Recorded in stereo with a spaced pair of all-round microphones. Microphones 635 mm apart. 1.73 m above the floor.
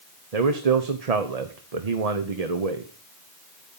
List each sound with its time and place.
0.3 s a man speaking: 70° right (ahead or behind), 1.0 m